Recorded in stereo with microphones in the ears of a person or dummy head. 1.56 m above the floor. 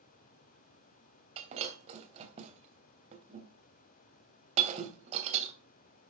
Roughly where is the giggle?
I don't hear a giggle.